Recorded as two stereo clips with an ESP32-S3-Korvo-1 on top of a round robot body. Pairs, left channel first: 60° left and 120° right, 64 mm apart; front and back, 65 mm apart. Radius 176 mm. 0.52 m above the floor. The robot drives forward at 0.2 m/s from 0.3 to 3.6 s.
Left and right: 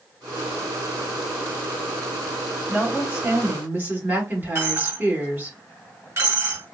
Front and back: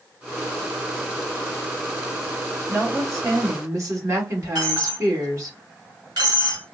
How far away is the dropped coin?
About 1.8 m.